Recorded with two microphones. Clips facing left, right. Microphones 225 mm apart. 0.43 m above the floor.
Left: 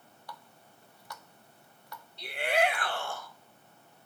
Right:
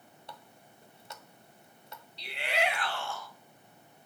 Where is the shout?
50° left (ahead or behind), 2 m.